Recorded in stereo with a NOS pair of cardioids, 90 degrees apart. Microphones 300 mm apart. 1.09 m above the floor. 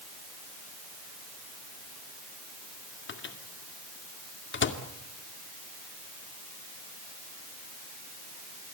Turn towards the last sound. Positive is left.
turn(degrees=40)